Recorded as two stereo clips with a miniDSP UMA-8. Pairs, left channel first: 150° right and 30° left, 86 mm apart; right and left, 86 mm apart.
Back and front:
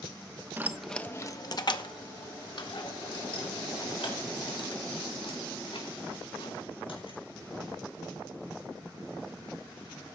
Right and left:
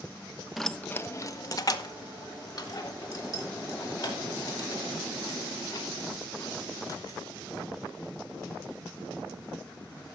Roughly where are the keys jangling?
Ahead.